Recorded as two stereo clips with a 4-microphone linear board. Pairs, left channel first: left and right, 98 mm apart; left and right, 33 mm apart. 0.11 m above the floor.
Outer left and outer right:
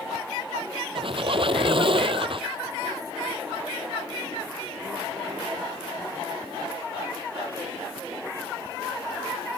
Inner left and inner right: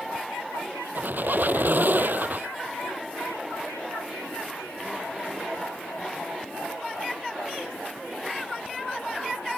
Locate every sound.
0.9 s a squeak: 60° right (ahead or behind)